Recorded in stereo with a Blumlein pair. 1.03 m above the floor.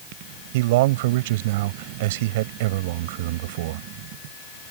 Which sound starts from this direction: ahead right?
A man speaking, at 0.5 s.